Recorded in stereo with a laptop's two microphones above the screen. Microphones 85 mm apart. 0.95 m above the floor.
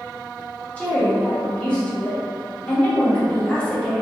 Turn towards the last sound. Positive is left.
turn(degrees=15)  # may be behind; listen again after turning